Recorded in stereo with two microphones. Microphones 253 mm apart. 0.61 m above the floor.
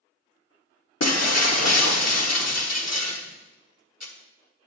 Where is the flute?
No flute in this recording.